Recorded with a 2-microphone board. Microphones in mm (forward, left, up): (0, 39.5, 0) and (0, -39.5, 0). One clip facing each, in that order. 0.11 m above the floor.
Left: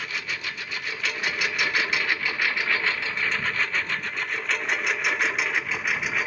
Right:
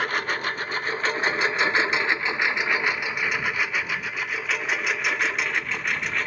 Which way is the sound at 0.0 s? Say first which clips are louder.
Right 7 dB; 55° right (ahead or behind).